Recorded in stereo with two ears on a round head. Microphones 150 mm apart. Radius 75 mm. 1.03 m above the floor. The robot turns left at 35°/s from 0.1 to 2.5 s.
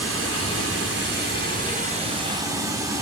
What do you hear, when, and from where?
0.0 s running water: 75° right, 4 m; by 3.0 s 160° right, 4 m